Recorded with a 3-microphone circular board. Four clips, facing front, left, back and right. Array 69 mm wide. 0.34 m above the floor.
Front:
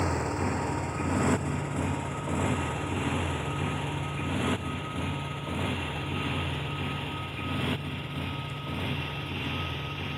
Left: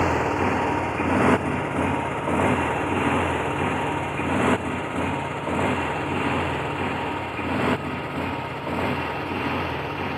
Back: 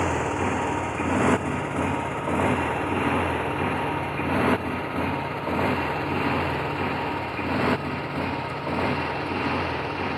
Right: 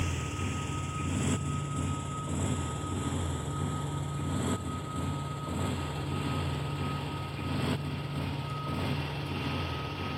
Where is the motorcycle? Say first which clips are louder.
Left 15 dB, back 5 dB; 110° left; by 10.2 s 140° left.